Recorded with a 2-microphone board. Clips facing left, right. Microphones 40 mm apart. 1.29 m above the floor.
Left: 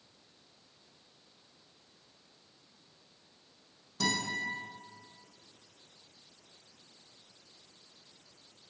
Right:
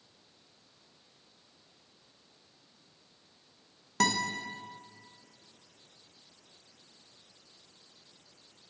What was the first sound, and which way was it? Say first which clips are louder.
A guitar: right 4 dB; 75° right (ahead or behind).